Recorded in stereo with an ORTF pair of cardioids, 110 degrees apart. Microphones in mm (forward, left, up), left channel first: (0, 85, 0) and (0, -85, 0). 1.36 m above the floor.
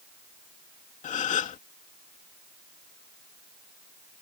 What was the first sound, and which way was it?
A gasp, 50° left.